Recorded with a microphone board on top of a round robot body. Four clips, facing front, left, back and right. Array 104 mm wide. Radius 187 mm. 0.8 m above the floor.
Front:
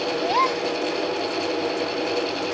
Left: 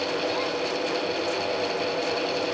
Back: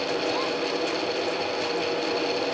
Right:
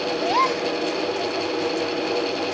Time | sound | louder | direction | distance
0.2 | a gasp | right 6 dB, front 5 dB | 50° right | ?